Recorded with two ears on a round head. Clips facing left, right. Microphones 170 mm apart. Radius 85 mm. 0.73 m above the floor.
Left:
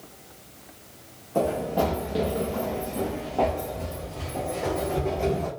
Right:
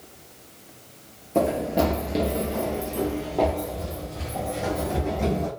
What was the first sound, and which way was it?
Running footsteps, 25° right (ahead or behind).